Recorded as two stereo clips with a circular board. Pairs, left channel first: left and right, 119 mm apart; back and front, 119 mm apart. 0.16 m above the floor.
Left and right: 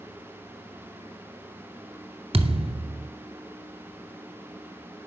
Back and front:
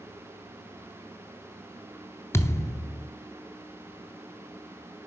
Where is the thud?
115° right, 0.6 m.